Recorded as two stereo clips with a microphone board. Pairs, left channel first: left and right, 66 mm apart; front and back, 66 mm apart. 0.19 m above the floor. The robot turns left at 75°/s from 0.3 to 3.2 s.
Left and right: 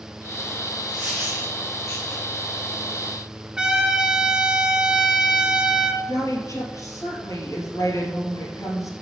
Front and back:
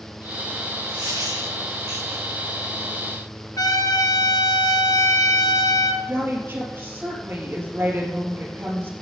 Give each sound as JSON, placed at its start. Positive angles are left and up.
{"t": 0.9, "sound": "a dropped coin", "azimuth_deg": -155, "distance_m": 3.5}
{"t": 3.6, "sound": "a trumpet", "azimuth_deg": -15, "distance_m": 1.4}
{"t": 6.1, "sound": "a woman speaking", "azimuth_deg": 125, "distance_m": 3.5}